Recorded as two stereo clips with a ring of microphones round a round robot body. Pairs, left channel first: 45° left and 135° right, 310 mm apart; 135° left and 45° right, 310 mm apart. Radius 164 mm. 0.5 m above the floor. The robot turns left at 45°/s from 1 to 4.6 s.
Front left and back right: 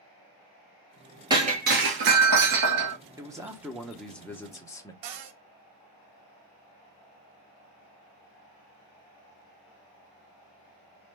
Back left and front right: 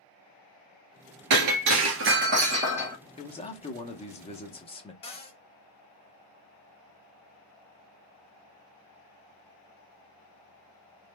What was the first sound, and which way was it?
Breaking glass, 60° right.